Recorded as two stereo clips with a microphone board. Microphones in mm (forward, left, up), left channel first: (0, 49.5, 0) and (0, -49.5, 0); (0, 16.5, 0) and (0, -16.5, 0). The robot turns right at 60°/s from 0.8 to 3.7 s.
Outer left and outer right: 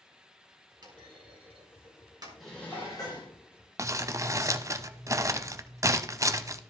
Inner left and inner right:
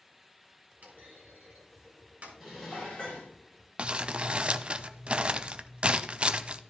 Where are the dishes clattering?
Straight ahead, 3.5 m; by 3.3 s 55° left, 3.5 m.